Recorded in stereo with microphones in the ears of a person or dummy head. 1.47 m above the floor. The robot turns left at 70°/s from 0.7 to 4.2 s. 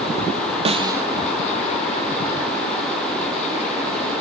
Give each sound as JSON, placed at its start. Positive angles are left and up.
{"t": 0.7, "sound": "a snare drum", "side_deg": -30, "distance_m": 1.3}